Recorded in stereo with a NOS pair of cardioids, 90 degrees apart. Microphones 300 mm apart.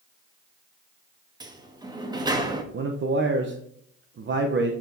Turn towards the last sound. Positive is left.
turn(degrees=-40)